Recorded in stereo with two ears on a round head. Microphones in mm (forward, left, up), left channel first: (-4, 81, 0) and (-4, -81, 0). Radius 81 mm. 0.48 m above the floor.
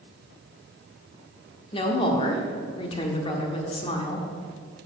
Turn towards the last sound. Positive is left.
turn(degrees=30)  # may be behind; listen again after turning